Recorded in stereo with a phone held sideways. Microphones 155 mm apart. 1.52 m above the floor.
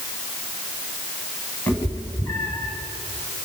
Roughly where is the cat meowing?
Centre.